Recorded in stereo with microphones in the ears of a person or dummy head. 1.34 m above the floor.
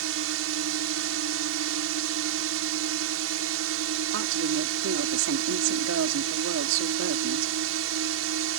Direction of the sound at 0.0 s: 75° right (ahead or behind).